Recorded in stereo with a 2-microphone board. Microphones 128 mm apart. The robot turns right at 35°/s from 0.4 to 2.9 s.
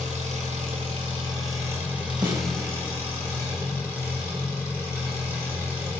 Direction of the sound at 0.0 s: 70° right.